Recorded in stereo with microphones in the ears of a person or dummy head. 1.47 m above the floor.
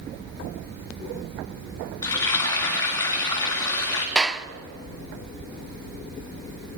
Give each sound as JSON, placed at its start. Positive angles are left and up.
{"t": 2.0, "sound": "frying", "side_deg": 15, "distance_m": 2.5}
{"t": 4.2, "sound": "a clap", "side_deg": 0, "distance_m": 0.6}